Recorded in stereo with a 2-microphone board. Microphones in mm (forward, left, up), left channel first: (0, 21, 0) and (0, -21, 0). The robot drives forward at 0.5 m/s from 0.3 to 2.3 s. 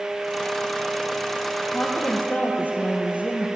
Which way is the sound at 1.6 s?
40° left (ahead or behind).